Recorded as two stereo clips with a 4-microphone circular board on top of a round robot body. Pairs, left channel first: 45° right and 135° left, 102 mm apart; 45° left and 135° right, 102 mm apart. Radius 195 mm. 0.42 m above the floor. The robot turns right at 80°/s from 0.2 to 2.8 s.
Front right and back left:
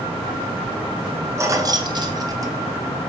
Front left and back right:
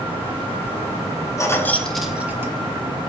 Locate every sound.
1.4 s keys jangling: 85° left, 0.8 m; by 2.9 s 160° right, 0.8 m